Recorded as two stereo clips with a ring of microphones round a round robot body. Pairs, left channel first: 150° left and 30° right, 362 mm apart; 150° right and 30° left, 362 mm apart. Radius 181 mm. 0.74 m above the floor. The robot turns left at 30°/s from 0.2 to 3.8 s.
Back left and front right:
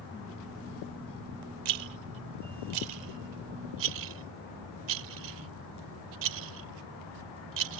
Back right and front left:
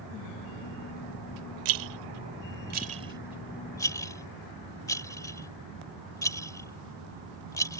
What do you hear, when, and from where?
1.6 s a rattle: 5° right; by 7.8 s 70° right